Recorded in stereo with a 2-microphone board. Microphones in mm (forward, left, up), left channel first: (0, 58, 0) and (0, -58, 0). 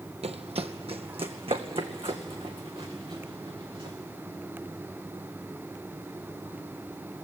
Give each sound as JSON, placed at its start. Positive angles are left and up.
{"t": 0.2, "sound": "running footsteps", "side_deg": -70, "distance_m": 0.8}